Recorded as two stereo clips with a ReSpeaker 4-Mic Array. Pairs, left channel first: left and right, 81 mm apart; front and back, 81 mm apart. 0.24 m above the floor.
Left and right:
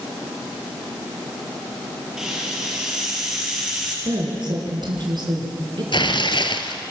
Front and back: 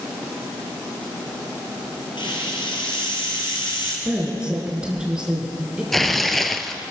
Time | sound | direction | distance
2.2 | a hiss | 5° right | 5 m
4.0 | a woman speaking | 100° right | 4 m
5.9 | tearing paper | 85° left | 1.2 m